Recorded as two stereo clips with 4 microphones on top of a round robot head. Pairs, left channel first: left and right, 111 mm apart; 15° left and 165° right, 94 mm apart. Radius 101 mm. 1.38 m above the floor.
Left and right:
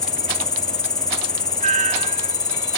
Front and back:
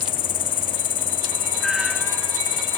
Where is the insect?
35° left.